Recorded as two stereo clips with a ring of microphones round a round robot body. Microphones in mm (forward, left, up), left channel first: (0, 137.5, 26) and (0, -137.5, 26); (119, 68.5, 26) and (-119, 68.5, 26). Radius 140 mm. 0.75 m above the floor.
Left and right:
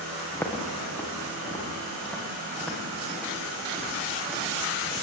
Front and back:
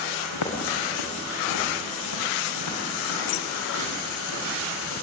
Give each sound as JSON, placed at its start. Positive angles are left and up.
{"t": 0.3, "sound": "footsteps", "azimuth_deg": 10, "distance_m": 6.5}